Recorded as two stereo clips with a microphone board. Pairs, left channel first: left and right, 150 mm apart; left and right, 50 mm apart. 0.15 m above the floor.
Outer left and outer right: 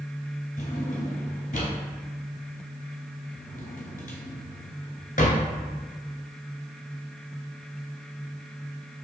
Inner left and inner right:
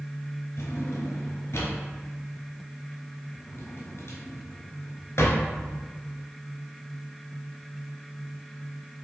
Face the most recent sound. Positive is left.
turn(degrees=60)  # may be behind; listen again after turning